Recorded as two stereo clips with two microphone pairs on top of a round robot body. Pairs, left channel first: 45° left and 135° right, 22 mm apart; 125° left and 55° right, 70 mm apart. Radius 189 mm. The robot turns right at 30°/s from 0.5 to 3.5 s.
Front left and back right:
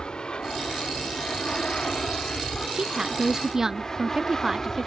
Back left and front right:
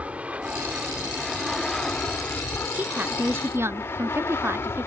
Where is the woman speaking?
120° right; by 4.9 s 95° right.